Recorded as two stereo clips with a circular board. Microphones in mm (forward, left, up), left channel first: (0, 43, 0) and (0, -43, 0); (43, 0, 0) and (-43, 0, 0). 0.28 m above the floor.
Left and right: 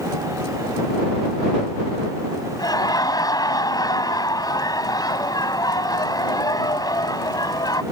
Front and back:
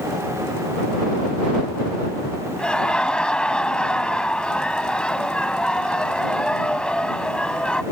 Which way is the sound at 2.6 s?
75° left.